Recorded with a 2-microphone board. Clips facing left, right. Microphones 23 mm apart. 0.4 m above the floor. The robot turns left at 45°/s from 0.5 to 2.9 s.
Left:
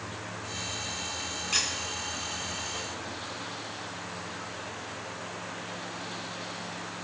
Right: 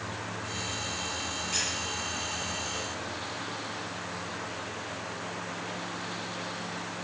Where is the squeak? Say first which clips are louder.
Left 4 dB; 40° left (ahead or behind), 2.5 m; by 1.7 s 50° left (ahead or behind), 2.5 m.